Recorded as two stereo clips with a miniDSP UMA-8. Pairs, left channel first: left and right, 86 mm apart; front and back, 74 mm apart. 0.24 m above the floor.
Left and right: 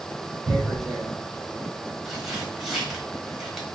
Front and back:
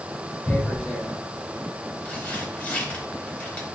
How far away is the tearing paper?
About 0.9 m.